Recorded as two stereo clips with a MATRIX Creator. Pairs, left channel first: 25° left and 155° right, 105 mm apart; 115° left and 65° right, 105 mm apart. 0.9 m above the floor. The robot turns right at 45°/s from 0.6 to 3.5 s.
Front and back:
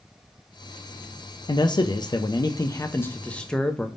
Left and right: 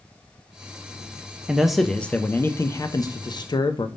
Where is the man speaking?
10° left, 0.5 m; by 3.9 s 100° left, 0.5 m.